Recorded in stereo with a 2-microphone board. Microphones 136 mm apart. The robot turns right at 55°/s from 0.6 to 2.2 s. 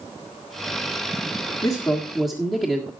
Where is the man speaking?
145° left, 1.7 m; by 2.9 s 175° left, 1.7 m.